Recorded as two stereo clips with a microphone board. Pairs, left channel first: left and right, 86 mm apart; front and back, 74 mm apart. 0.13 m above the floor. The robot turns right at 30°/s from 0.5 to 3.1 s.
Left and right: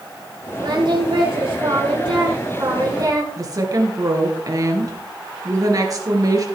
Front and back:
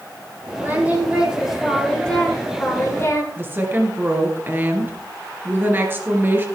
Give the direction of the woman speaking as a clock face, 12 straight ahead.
4 o'clock.